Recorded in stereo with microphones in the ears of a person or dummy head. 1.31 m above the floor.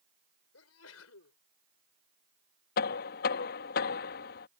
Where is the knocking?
55° left (ahead or behind).